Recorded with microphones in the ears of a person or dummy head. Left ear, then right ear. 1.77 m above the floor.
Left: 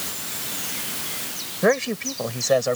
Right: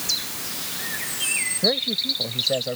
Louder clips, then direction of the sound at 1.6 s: Left 2 dB; 50° left (ahead or behind).